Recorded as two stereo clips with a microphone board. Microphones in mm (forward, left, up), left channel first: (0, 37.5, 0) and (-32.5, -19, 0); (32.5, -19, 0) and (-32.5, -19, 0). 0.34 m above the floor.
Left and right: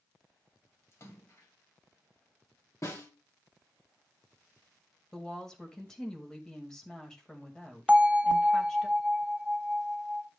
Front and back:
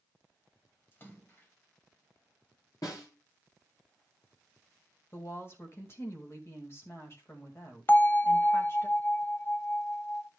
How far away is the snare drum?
About 5.5 m.